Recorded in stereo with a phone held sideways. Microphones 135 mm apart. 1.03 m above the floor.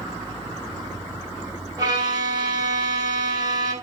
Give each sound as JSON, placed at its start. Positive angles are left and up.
{"t": 1.8, "sound": "a violin", "side_deg": -30, "distance_m": 5.5}